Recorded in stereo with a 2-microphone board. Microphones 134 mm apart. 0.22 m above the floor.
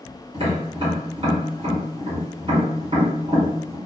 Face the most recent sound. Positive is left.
turn(degrees=-45)  # may be behind; listen again after turning